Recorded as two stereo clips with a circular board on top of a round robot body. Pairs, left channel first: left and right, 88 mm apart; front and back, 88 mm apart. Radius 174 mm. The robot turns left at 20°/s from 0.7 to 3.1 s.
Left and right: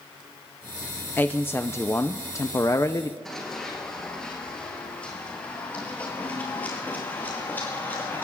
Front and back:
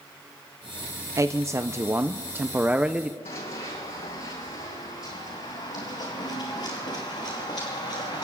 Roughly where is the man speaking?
Behind left.